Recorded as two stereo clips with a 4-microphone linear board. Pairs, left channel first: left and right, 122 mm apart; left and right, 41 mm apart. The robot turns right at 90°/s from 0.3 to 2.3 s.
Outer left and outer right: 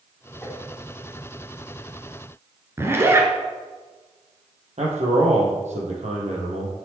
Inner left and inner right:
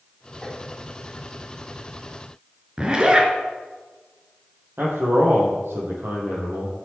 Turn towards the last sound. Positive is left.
turn(degrees=-70)  # may be behind; listen again after turning